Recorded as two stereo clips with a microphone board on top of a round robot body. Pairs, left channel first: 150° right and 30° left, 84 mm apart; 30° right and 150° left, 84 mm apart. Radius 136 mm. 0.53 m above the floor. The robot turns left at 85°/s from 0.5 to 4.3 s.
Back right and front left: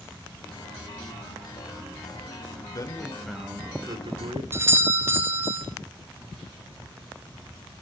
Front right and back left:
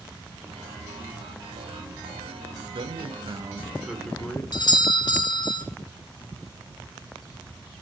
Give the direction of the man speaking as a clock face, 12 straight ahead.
6 o'clock.